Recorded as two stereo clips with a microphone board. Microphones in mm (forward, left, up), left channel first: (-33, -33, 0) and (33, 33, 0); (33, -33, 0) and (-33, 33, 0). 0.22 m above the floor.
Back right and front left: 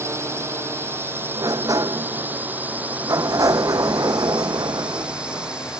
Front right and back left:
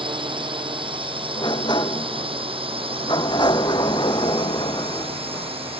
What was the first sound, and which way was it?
A drone, 105° left.